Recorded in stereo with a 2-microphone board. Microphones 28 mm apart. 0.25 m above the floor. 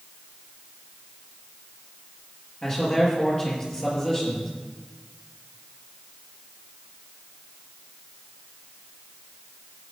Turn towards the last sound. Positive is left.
turn(degrees=25)  # may be behind; listen again after turning